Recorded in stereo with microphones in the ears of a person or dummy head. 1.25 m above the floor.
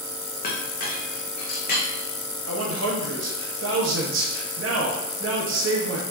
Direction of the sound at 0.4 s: 50° left (ahead or behind).